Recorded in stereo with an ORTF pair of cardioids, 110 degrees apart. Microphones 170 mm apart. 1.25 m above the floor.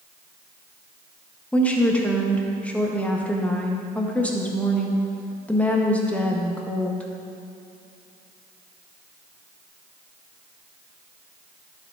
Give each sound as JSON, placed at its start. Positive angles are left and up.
{"t": 1.5, "sound": "a woman speaking", "azimuth_deg": 10, "distance_m": 1.4}